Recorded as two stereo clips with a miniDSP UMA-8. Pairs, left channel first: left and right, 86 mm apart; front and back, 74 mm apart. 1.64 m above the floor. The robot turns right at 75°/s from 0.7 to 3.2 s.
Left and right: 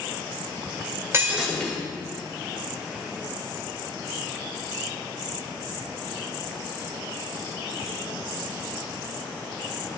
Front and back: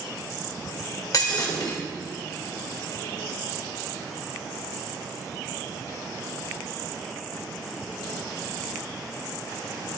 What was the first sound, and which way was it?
Breaking glass, 30° right.